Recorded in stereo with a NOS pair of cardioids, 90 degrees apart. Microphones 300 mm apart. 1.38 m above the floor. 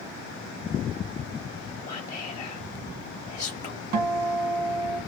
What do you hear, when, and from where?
1.9 s whispering: 25° left, 0.7 m
3.9 s a guitar: 65° right, 1.4 m